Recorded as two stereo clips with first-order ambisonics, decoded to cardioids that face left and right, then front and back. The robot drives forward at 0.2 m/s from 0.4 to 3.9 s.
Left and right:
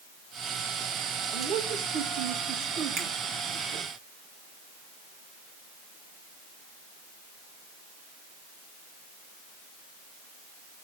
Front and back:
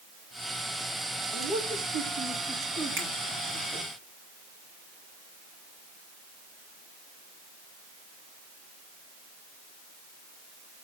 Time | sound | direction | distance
1.3 | a man speaking | 120° right | 2.5 m
3.0 | a finger snap | 135° right | 3.5 m